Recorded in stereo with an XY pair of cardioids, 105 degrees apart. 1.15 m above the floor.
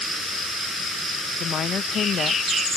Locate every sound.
1.4 s a woman speaking: 55° left